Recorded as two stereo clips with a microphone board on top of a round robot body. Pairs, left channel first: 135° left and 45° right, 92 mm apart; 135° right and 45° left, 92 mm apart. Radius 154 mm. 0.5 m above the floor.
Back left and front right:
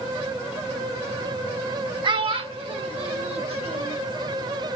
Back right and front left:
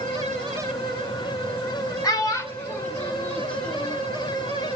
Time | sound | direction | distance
2.0 | a child speaking | 85° right | 1.0 m